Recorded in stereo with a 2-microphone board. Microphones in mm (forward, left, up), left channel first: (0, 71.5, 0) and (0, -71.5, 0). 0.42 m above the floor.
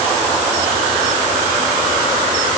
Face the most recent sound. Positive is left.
No sound to turn to.